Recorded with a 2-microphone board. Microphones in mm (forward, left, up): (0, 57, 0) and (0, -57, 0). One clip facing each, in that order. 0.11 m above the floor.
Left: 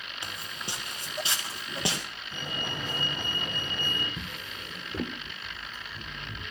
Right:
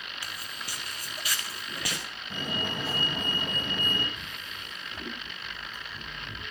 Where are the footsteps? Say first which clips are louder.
Left 4 dB; 25° left (ahead or behind), 1.6 m.